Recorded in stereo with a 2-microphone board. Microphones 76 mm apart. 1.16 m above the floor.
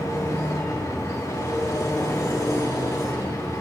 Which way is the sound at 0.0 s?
45° left (ahead or behind).